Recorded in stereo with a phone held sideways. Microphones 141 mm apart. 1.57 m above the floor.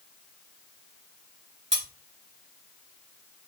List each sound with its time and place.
1.7 s cutlery clinking: 45° right (ahead or behind), 1.8 m